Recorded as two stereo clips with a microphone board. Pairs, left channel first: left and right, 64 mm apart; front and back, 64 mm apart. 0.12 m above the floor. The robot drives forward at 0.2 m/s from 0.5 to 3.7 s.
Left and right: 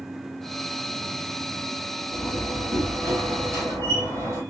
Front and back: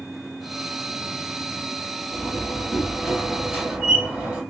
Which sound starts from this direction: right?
A door slam, at 2.1 s.